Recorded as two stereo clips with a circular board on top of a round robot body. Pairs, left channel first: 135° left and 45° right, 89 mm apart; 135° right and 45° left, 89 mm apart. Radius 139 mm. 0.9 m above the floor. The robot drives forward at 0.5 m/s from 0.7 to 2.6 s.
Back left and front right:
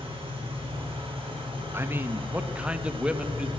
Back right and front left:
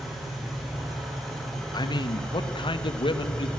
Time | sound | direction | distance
0.0 | an engine running | 45° right | 5 m
1.7 | a man speaking | 105° right | 1.4 m